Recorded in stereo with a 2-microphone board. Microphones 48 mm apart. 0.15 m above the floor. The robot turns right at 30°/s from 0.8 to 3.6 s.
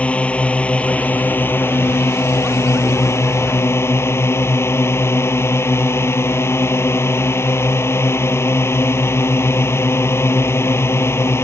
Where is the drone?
30° left; by 11.4 s 110° left.